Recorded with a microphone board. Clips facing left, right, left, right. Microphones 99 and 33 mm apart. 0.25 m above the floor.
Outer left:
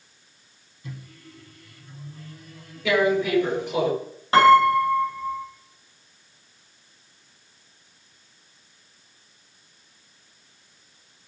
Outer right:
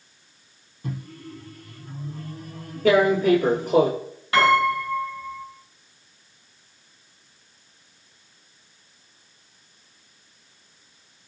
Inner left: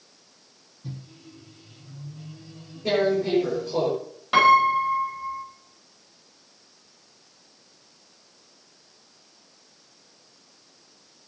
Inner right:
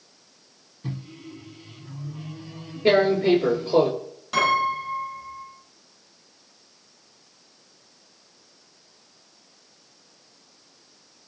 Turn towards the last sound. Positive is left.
turn(degrees=30)  # may be behind; listen again after turning